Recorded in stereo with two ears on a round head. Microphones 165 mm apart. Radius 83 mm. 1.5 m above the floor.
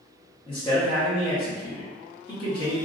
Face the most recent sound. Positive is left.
turn(degrees=25)  # may be behind; listen again after turning